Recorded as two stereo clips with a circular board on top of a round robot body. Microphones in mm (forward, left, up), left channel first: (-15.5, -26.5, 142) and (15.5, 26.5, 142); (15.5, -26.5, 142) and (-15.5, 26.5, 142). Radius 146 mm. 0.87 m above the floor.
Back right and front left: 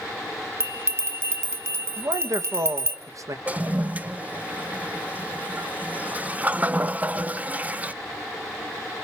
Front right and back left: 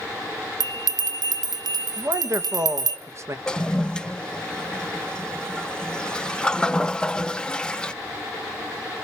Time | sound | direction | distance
0.6 | a bell | 110° left | 1.1 m
2.0 | a man speaking | 80° left | 1.4 m
3.5 | a toilet flushing | 10° left | 0.6 m